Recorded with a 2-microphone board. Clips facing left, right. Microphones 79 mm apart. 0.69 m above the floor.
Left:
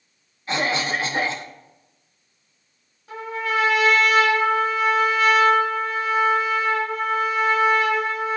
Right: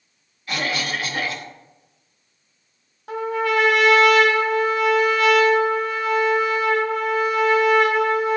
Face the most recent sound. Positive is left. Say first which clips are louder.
# right 4 dB
turn(degrees=-70)  # may be behind; listen again after turning